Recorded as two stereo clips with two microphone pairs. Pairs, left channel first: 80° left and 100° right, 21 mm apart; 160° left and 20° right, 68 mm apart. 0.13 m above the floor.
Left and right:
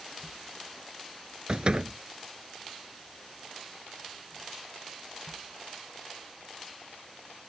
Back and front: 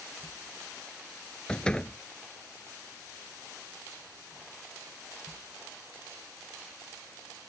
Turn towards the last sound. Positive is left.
turn(degrees=-130)